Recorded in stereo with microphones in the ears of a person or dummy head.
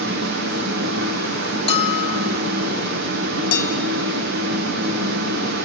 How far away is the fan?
About 1.2 m.